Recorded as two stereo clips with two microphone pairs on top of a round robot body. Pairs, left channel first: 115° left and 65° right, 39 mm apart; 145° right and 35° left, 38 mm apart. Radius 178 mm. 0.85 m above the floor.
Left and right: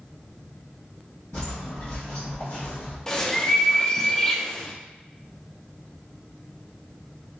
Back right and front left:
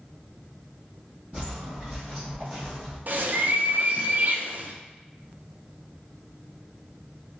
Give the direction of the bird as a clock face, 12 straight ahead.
10 o'clock.